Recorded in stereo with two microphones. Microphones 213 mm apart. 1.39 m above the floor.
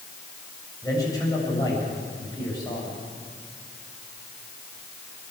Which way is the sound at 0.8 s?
15° left (ahead or behind).